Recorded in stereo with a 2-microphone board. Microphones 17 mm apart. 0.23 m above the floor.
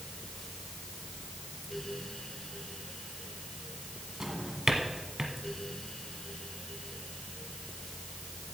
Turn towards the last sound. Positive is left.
turn(degrees=-25)  # may be behind; listen again after turning